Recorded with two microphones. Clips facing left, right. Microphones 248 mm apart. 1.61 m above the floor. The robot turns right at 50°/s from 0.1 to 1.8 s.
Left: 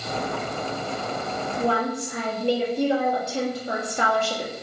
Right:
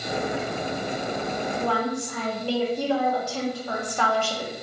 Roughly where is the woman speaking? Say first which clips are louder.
Left 4 dB; left.